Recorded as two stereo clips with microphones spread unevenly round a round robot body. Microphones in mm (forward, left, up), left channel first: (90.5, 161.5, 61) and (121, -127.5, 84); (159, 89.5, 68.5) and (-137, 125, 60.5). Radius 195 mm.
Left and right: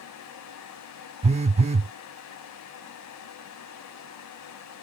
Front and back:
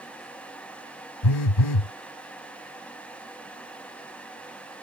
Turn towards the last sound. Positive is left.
turn(degrees=-15)